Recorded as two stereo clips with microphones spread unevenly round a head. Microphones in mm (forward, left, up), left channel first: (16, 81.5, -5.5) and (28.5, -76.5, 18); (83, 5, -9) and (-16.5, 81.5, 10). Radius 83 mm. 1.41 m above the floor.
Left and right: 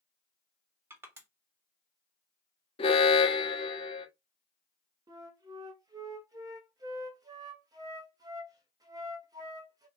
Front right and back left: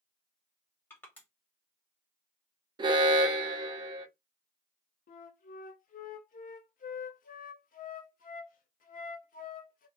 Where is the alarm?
95° left, 0.6 m.